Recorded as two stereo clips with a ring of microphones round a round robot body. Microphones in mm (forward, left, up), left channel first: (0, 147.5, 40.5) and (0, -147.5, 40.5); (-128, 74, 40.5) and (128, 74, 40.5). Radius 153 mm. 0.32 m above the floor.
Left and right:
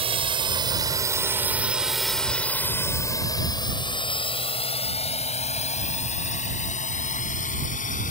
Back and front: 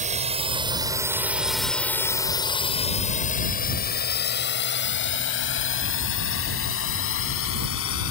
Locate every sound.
0.0 s a drone: 35° right; by 8.1 s 155° left